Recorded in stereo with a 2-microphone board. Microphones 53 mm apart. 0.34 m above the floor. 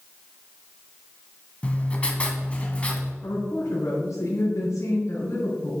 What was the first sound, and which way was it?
Writing, 20° left (ahead or behind).